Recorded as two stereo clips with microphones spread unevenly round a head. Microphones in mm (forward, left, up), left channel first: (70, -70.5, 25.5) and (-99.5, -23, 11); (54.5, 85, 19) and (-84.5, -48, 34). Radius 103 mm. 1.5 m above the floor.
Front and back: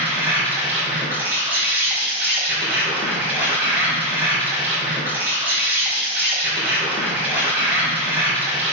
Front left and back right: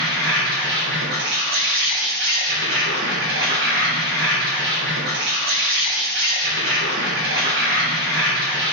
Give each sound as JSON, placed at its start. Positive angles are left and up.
{"t": 0.0, "sound": "an insect", "azimuth_deg": -120, "distance_m": 1.7}